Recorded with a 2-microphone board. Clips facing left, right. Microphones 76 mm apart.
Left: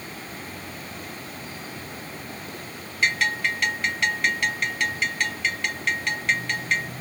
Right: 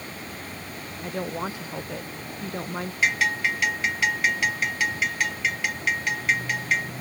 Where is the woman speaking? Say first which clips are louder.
Right 8 dB; 80° right.